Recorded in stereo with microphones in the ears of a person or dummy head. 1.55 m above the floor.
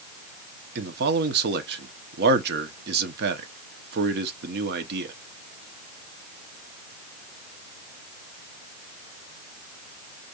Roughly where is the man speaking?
Right.